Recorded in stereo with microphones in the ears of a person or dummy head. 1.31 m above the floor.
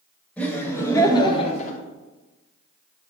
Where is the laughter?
10° left (ahead or behind), 1.8 m; by 1.8 s 45° left (ahead or behind), 1.0 m.